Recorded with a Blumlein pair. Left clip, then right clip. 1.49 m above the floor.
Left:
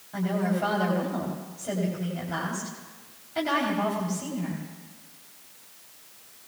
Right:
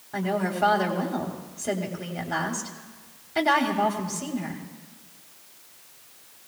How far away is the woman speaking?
About 3.5 m.